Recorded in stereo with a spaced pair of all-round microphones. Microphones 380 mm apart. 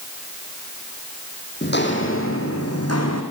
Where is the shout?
I don't hear a shout.